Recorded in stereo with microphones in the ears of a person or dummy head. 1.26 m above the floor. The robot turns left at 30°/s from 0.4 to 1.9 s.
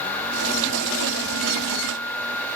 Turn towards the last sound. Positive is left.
No sound to turn to.